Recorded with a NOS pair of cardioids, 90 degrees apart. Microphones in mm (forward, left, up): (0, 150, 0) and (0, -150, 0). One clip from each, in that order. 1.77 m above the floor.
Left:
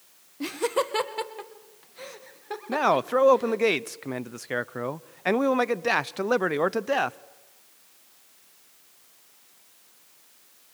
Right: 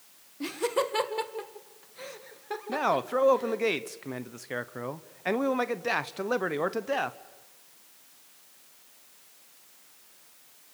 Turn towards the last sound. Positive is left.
turn(degrees=25)